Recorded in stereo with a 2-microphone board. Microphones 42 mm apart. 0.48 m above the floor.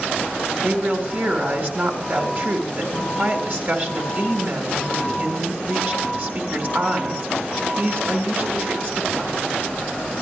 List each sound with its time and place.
0.6 s a woman speaking: 45° right (ahead or behind), 1.8 m